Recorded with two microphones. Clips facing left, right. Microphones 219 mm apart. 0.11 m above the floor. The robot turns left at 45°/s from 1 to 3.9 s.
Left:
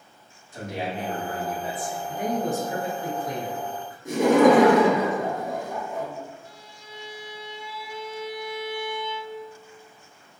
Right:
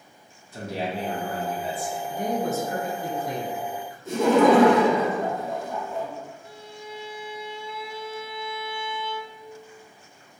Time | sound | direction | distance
0.5 | a man speaking | 80° right | 1.3 m
2.1 | a man speaking | 50° left | 1.2 m
4.0 | laughter | 15° left (ahead or behind) | 1.8 m
6.5 | a violin | 60° right (ahead or behind) | 0.5 m